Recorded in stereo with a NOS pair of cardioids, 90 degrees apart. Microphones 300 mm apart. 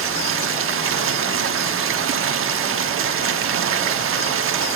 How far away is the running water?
About 1.2 m.